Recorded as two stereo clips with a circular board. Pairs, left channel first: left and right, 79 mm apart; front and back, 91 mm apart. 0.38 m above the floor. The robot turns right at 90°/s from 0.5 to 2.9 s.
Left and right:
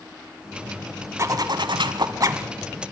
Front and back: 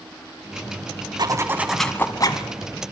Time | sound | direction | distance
1.2 | a zipper | 140° right | 1.1 m